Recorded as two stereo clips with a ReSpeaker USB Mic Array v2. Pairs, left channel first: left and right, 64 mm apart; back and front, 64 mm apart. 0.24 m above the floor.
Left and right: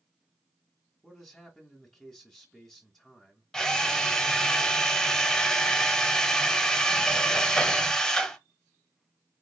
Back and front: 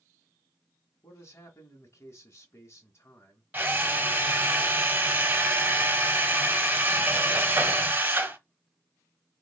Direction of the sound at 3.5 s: 15° left.